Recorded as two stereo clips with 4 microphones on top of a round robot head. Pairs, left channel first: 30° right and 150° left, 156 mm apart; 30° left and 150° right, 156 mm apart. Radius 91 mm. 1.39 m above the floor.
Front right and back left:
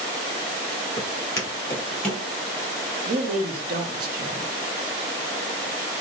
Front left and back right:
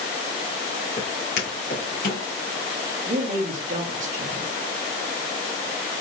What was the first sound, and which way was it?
Footsteps, 10° left.